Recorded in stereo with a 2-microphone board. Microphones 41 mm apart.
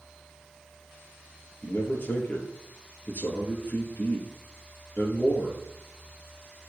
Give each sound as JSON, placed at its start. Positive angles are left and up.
{"t": 1.6, "sound": "a man speaking", "side_deg": 55, "distance_m": 3.5}